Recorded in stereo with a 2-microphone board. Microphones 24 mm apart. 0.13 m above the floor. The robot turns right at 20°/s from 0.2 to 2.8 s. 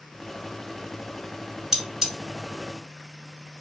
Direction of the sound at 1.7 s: 25° right (ahead or behind).